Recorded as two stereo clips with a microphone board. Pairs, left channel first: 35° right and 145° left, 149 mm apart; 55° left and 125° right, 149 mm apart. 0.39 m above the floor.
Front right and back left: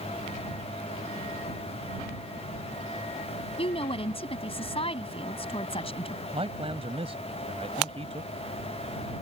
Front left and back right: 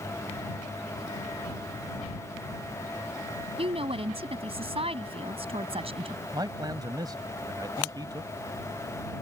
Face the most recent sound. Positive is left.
turn(degrees=180)